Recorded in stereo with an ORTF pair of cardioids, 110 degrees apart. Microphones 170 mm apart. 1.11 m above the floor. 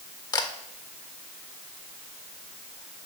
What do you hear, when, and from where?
0.3 s a camera shutter: 25° left, 1.3 m